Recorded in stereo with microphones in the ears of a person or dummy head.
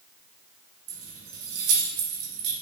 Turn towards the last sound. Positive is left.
turn(degrees=-65)  # may be behind; listen again after turning